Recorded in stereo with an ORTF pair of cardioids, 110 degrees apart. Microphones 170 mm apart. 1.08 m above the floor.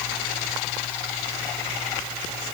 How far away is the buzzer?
I don't hear a buzzer.